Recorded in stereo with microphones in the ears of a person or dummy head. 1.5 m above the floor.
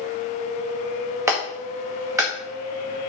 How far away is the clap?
About 1.6 m.